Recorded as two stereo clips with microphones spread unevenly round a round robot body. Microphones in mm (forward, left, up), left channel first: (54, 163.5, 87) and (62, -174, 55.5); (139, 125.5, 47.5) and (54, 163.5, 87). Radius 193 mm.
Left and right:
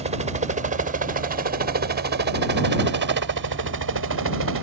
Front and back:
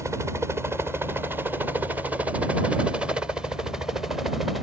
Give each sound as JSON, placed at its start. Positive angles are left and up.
{"t": 0.0, "sound": "a helicopter", "azimuth_deg": -125}